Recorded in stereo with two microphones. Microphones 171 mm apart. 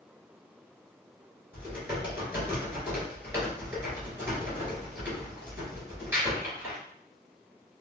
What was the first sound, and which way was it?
Typing on a keyboard, 10° right (ahead or behind).